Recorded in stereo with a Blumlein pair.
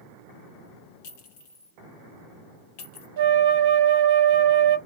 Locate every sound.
1.0 s a clink: 50° left, 1.0 m
3.2 s a flute: 55° right, 0.6 m